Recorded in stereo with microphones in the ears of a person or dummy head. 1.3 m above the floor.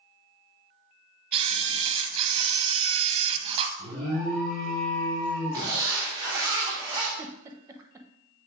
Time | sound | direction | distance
1.3 | a camera shutter | 30° right (ahead or behind) | 0.6 m
3.8 | an alarm | 65° right (ahead or behind) | 3.5 m
5.5 | a zipper | 20° right (ahead or behind) | 2.5 m
7.2 | a giggle | 15° right (ahead or behind) | 0.6 m